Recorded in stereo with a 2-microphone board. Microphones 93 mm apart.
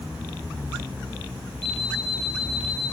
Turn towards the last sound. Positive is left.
turn(degrees=-60)  # may be behind; listen again after turning